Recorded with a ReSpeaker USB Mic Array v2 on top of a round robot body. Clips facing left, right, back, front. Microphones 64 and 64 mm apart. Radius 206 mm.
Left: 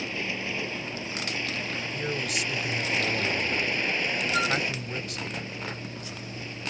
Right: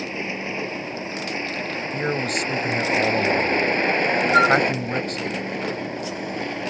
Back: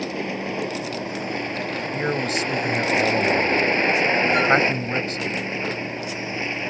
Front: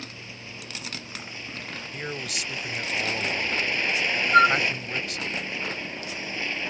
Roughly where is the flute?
Ahead right.